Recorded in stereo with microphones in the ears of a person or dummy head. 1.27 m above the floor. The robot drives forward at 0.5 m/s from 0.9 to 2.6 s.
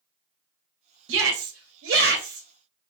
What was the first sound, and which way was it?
A shout, 70° right (ahead or behind).